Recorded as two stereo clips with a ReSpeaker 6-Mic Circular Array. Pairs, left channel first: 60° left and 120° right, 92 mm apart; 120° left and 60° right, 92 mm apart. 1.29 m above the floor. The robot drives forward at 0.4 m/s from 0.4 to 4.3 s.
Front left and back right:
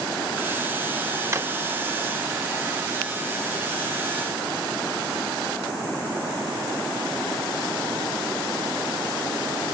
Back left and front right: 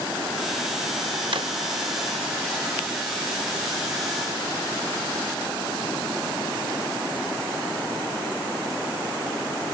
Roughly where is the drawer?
Ahead right.